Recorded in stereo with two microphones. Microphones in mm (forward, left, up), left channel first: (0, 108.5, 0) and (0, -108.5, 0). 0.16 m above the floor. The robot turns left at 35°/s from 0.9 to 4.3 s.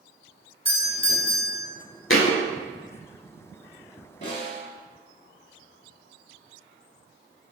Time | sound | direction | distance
0.7 | a doorbell | 30° left (ahead or behind) | 1.5 m
2.1 | a thud | 65° left (ahead or behind) | 0.7 m
4.2 | a snare drum | 35° left (ahead or behind) | 1.9 m